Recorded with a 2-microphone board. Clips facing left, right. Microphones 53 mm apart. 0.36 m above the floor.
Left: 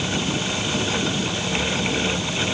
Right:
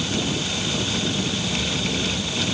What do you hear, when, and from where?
Only background noise.